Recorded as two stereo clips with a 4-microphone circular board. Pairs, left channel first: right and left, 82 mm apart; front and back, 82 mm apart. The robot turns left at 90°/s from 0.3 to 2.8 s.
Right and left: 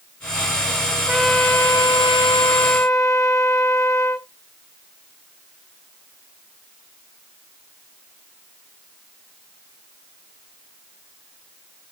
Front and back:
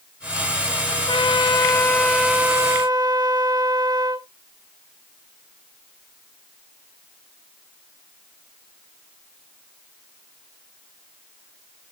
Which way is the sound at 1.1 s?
15° left.